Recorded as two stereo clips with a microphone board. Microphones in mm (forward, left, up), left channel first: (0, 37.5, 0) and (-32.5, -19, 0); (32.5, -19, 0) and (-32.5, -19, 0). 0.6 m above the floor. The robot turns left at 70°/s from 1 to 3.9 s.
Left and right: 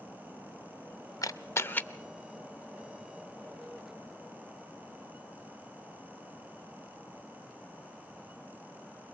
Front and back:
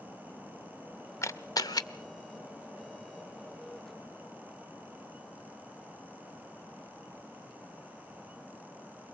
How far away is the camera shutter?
About 0.6 m.